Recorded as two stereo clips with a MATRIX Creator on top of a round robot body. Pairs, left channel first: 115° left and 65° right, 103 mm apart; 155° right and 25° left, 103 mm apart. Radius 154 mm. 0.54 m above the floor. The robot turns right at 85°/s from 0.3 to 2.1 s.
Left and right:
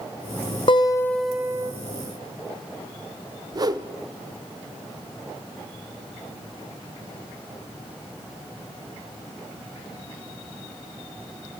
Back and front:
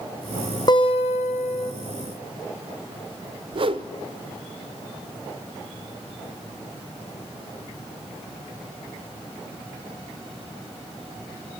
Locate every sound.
0.7 s a guitar: 150° left, 1.2 m; by 1.7 s 120° right, 1.2 m
3.5 s a whoosh: 15° right, 0.9 m